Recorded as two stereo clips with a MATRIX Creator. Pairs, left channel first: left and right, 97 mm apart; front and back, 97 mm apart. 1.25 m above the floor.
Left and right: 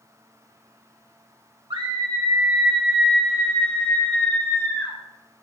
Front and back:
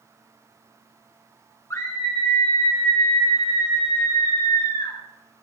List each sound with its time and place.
1.7 s a scream: 55° right, 1.3 m; by 5.0 s 25° left, 3 m